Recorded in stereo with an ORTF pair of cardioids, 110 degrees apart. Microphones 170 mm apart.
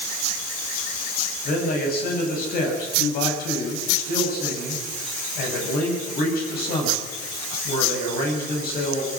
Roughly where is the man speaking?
Ahead left.